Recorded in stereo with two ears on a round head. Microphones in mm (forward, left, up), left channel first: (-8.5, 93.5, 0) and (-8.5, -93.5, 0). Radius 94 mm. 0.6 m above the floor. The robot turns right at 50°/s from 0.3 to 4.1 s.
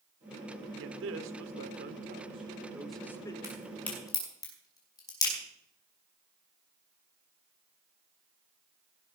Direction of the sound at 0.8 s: 105° right.